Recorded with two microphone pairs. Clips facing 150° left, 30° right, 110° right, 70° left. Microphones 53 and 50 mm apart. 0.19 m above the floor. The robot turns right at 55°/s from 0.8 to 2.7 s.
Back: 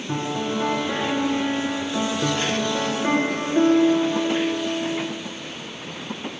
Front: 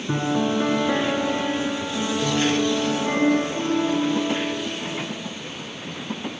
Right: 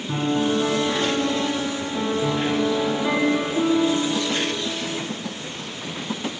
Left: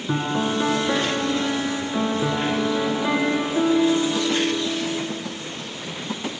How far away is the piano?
About 2.5 m.